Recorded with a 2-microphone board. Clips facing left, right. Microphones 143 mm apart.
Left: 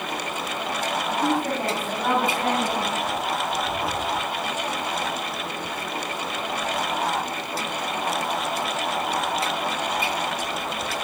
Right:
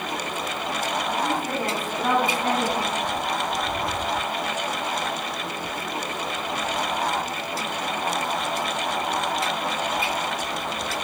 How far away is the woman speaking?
About 6.5 m.